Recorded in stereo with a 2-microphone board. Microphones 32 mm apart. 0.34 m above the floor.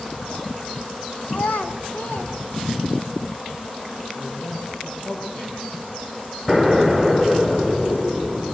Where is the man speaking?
50° left (ahead or behind), 9.5 m.